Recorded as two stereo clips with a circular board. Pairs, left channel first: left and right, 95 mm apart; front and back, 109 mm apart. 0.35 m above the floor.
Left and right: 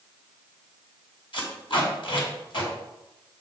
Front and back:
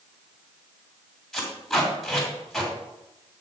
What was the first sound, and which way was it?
Tape being pulled, 90° left.